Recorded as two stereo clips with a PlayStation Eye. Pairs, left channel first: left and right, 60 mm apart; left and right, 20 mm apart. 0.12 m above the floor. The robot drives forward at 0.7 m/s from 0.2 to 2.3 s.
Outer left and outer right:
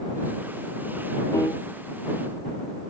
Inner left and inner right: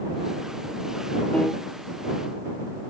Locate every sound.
1.3 s a piano: 60° left (ahead or behind); by 1.6 s 65° left (ahead or behind)